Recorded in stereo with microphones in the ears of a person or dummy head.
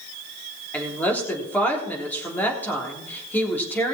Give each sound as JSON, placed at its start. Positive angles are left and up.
{"t": 0.7, "sound": "a woman speaking", "side_deg": 10, "distance_m": 3.5}